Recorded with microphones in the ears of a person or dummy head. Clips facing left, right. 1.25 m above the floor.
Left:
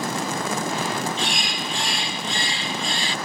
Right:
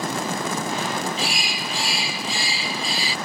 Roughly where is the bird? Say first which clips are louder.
Even; centre.